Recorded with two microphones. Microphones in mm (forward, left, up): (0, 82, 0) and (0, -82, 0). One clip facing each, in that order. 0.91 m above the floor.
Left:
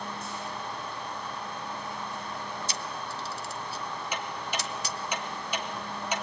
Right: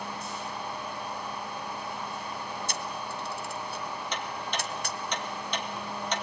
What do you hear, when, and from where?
2.7 s a camera shutter: 55° right (ahead or behind), 1.3 m
4.1 s ticking: 10° left (ahead or behind), 2.5 m